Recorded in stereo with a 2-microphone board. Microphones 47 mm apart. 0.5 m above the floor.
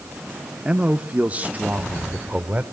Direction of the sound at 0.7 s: 20° right (ahead or behind).